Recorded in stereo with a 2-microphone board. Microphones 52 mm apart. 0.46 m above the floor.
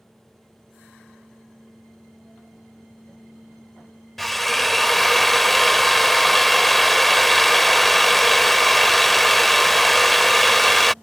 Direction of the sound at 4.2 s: Centre (ahead or behind).